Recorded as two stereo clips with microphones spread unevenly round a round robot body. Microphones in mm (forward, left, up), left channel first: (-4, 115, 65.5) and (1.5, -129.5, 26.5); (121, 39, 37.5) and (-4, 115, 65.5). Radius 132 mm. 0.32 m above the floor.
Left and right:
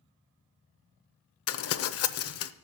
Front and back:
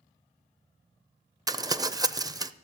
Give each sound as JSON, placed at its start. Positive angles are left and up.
{"t": 1.5, "sound": "crumpling", "azimuth_deg": 80, "distance_m": 0.7}